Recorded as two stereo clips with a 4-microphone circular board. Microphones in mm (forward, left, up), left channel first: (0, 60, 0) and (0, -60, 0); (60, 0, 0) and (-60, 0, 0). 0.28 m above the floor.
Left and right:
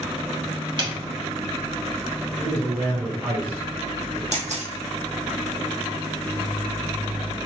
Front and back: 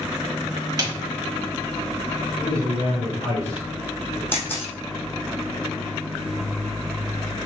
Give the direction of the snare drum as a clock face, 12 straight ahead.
4 o'clock.